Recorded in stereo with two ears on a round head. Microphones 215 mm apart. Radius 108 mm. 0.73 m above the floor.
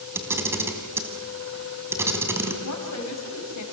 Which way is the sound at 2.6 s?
70° left (ahead or behind).